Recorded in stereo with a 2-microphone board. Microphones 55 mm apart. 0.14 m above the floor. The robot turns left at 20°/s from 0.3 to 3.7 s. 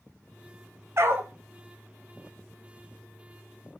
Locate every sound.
1.0 s a dog barking: 50° right (ahead or behind), 1.8 m; by 1.3 s 45° right (ahead or behind), 1.8 m